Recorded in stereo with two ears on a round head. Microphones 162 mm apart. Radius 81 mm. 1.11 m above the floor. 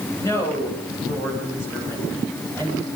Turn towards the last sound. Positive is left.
turn(degrees=10)  # may be behind; listen again after turning